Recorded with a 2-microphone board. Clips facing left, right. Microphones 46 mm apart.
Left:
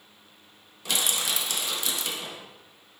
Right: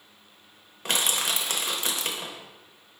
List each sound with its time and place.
0.8 s crushing: 45° right (ahead or behind), 0.7 m